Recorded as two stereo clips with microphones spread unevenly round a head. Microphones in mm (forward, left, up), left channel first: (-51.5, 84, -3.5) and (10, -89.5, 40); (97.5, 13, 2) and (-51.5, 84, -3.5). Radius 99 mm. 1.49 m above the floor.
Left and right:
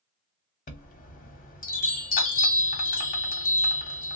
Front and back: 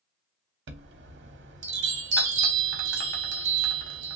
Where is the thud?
No thud in this recording.